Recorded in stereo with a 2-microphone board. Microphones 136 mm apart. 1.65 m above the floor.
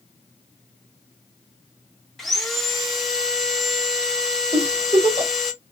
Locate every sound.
2.2 s sawing: centre (ahead or behind), 1.3 m
4.5 s a giggle: 45° right (ahead or behind), 1.9 m